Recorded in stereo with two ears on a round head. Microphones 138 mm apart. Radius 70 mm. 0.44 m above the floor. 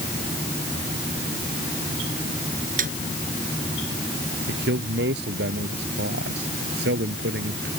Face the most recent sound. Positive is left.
turn(degrees=-75)  # may be behind; listen again after turning